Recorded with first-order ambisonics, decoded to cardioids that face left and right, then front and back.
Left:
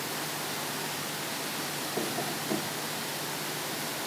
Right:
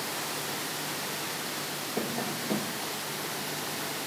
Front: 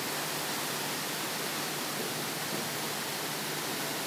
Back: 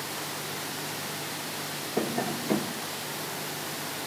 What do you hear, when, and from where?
2.0 s tapping: 170° right, 0.8 m